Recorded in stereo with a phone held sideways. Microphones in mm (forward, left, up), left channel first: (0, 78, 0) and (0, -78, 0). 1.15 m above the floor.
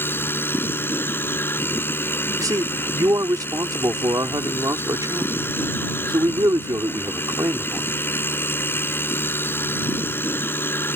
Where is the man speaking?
25° right (ahead or behind).